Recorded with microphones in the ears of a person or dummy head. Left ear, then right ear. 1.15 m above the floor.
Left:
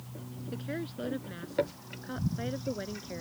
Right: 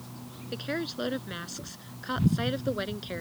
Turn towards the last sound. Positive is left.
turn(degrees=-50)  # may be behind; listen again after turning